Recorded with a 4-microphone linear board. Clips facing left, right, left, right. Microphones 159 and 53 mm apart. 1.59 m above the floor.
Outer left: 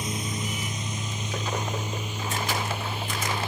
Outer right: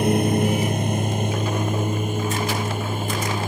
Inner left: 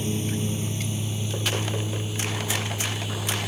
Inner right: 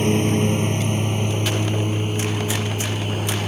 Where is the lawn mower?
60° right (ahead or behind); by 3.5 s 45° right (ahead or behind).